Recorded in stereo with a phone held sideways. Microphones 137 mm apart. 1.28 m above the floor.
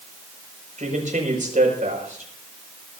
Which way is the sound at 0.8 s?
65° right (ahead or behind).